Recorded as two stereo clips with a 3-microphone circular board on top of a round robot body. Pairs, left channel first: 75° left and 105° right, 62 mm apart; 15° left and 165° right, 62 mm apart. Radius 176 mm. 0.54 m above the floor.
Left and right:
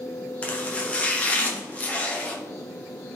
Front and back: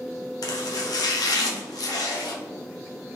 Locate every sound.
0.4 s chopping: 5° left, 0.7 m